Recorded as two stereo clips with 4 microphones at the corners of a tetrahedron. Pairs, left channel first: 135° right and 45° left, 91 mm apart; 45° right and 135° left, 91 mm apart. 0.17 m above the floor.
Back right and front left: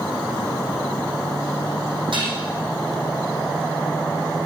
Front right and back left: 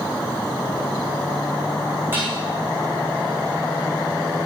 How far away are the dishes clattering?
About 6 m.